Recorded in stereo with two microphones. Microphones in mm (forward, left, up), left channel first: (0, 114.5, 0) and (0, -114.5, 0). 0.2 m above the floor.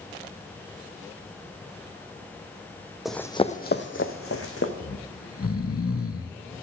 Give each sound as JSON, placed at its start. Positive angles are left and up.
{"t": 3.0, "sound": "running footsteps", "side_deg": 0, "distance_m": 0.6}
{"t": 4.8, "sound": "snoring", "side_deg": 75, "distance_m": 0.5}